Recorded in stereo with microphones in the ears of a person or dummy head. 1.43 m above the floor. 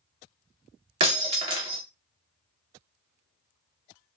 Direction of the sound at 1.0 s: 30° right (ahead or behind).